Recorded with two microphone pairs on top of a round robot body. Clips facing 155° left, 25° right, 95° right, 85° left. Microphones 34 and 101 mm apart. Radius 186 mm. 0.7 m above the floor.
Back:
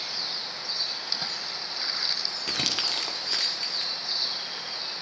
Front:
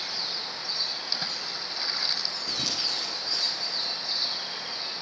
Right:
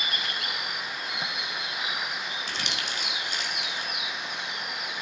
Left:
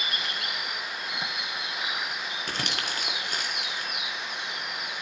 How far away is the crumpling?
About 1.5 m.